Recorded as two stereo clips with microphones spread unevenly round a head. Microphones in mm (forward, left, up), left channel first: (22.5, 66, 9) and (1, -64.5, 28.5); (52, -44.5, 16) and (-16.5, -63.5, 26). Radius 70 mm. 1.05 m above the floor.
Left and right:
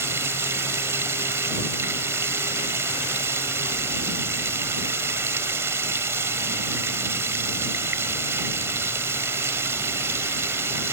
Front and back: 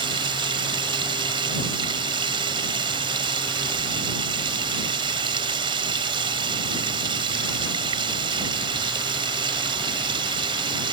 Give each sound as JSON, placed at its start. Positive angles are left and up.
{"t": 0.0, "sound": "running water", "azimuth_deg": -175}